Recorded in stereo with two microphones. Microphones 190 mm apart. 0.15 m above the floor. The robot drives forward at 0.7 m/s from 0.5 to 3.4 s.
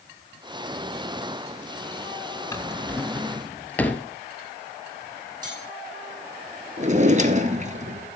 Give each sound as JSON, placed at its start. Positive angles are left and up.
{"t": 2.5, "sound": "a drawer", "side_deg": 15, "distance_m": 0.5}
{"t": 5.4, "sound": "cutlery clinking", "side_deg": -25, "distance_m": 4.5}
{"t": 6.8, "sound": "a drawer", "side_deg": -40, "distance_m": 1.0}